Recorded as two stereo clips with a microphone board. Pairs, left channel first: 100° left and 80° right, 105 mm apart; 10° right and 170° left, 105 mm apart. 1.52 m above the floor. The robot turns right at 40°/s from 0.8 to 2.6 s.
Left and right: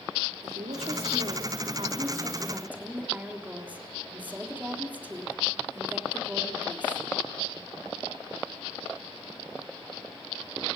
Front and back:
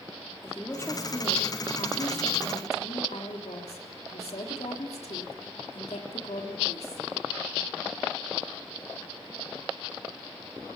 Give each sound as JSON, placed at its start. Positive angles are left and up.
{"t": 0.4, "sound": "a woman speaking", "azimuth_deg": -75, "distance_m": 3.5}